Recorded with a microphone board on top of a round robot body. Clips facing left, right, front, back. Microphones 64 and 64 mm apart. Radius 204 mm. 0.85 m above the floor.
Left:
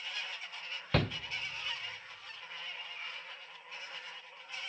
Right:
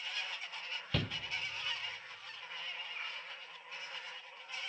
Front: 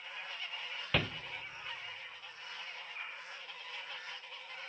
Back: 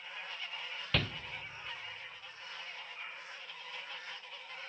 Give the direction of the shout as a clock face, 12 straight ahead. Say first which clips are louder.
Left 7 dB, front 1 dB; 9 o'clock.